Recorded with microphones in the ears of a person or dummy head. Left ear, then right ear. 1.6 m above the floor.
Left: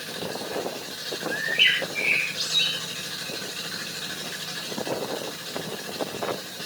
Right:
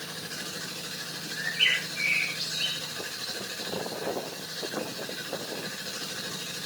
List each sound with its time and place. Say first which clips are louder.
1.3 s a bird: left 4 dB; 65° left (ahead or behind), 8 m